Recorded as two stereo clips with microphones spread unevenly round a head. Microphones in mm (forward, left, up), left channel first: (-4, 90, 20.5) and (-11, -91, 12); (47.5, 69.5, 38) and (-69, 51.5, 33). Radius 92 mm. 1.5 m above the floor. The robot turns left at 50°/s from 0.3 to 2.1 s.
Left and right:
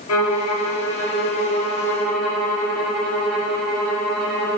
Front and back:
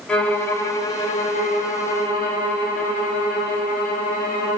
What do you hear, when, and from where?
0.1 s a violin: 90° left, 0.9 m; by 4.6 s straight ahead, 0.9 m